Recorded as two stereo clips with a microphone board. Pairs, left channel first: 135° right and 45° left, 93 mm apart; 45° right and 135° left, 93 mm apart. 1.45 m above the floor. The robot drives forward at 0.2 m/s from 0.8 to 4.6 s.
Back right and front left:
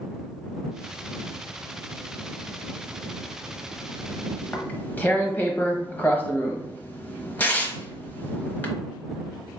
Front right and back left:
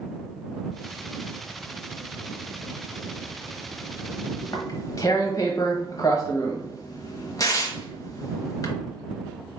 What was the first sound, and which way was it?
Tearing paper, 70° right.